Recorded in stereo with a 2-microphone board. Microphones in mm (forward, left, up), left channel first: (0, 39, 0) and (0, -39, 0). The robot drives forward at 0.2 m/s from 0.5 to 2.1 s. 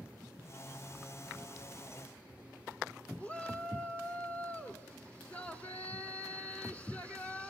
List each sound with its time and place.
3.2 s a shout: 15° left (ahead or behind), 1.3 m